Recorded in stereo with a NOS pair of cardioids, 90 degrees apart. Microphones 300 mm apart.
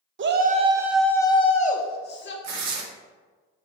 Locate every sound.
0.2 s a shout: 40° right, 0.6 m; by 2.3 s 40° left, 1.1 m
2.4 s tearing paper: 65° right, 0.8 m